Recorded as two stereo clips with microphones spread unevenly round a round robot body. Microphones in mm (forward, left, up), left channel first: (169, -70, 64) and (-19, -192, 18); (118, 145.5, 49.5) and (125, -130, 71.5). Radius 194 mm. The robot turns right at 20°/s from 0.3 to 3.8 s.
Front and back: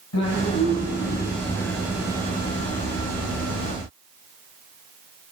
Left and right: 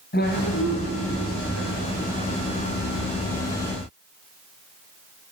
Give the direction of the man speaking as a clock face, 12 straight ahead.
11 o'clock.